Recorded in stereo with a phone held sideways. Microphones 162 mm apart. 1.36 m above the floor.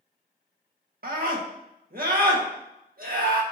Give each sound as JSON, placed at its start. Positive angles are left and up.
{"t": 1.0, "sound": "a scream", "side_deg": -65, "distance_m": 1.5}